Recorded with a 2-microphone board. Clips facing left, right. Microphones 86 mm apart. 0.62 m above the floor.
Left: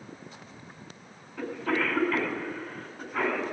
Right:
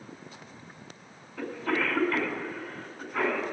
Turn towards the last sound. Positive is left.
turn(degrees=-10)  # may be behind; listen again after turning